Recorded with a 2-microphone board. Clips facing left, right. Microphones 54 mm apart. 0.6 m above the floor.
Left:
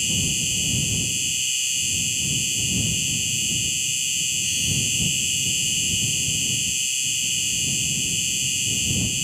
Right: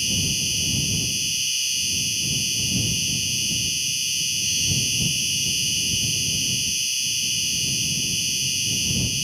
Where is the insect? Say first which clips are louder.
Even; 5° left (ahead or behind).